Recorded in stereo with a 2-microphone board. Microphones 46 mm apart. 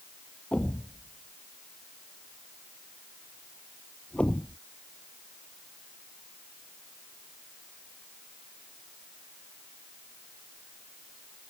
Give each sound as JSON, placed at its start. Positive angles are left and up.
{"t": 0.5, "sound": "a thud", "side_deg": 25}